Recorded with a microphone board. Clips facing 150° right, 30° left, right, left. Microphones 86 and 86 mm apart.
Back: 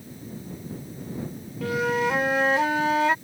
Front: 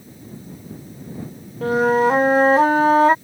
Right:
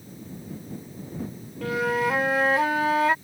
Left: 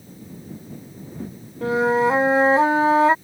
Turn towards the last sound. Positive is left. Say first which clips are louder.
# front 8 dB, left 6 dB
turn(degrees=45)